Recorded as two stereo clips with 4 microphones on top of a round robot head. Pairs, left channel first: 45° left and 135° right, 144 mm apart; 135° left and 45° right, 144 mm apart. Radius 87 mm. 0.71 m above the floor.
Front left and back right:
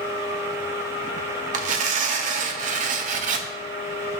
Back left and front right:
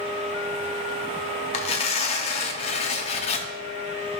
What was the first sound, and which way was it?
Tearing paper, 175° right.